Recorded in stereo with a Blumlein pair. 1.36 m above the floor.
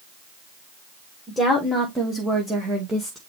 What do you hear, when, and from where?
1.3 s a woman speaking: straight ahead, 2 m; by 3.2 s 25° right, 1.9 m